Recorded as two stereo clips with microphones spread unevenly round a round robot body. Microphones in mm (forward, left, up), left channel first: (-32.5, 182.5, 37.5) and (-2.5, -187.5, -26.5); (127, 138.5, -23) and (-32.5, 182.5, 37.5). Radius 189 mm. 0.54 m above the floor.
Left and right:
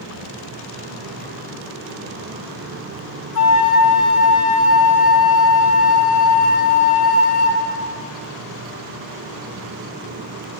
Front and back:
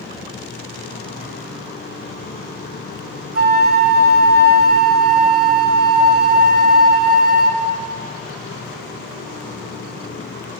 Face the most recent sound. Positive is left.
turn(degrees=140)